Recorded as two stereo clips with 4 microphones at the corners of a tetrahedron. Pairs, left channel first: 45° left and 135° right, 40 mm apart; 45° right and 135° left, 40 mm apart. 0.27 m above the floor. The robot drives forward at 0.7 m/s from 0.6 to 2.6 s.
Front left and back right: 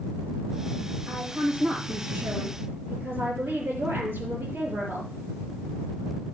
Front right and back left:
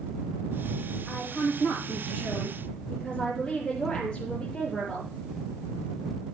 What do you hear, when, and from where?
1.1 s a woman speaking: 90° right, 7 m; by 5.1 s 100° right, 7 m